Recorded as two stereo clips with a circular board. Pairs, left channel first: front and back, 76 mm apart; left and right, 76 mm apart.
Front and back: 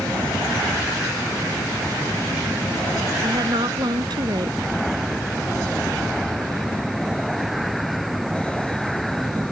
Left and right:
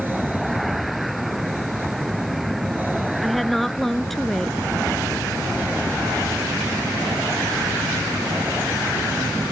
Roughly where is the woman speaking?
Behind.